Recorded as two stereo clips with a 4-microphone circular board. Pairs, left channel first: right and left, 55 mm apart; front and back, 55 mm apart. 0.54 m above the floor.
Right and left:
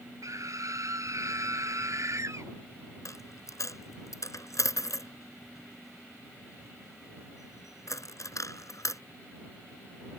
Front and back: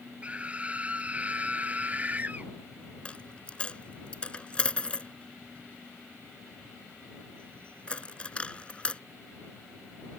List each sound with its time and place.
0.2 s a scream: 115° left; by 2.5 s 120° left
3.0 s a dropped coin: 70° right